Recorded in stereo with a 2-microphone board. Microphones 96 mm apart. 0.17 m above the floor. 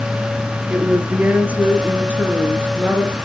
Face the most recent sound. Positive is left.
turn(degrees=-15)  # may be behind; listen again after turning